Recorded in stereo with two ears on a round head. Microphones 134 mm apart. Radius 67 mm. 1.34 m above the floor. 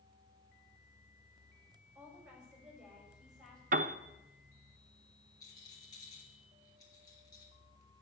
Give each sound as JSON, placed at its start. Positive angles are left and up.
{"t": 1.9, "sound": "a woman speaking", "side_deg": -15, "distance_m": 5.5}
{"t": 3.7, "sound": "a piano", "side_deg": -55, "distance_m": 0.6}
{"t": 5.4, "sound": "a rattle", "side_deg": 25, "distance_m": 4.0}